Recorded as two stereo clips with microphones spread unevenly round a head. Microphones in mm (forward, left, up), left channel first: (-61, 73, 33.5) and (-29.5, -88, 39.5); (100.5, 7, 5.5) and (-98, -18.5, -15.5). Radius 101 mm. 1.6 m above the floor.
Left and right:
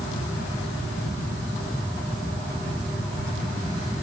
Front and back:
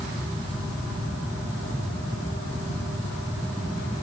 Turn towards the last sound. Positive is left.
No sound to turn to.